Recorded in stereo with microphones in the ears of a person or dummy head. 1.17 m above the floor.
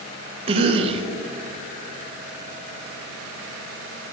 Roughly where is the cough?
Right.